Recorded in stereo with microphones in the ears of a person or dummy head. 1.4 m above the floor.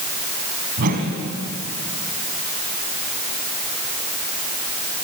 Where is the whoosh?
50° right (ahead or behind), 3 m.